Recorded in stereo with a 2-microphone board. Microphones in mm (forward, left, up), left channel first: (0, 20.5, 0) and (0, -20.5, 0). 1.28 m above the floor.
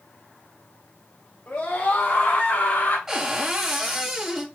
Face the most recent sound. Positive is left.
turn(degrees=-10)  # may be behind; listen again after turning